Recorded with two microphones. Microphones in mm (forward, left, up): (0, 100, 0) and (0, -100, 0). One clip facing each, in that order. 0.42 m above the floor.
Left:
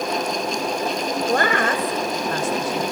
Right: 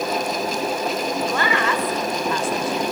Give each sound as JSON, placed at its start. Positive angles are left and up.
{"t": 1.3, "sound": "a woman speaking", "side_deg": 50, "distance_m": 2.0}